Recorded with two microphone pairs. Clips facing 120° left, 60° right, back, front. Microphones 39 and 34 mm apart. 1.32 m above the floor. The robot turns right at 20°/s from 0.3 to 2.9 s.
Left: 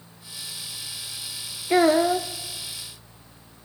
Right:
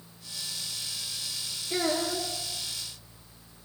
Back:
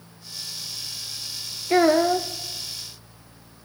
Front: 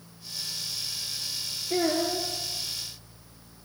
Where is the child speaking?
150° left, 0.6 m; by 2.3 s 165° left, 0.6 m.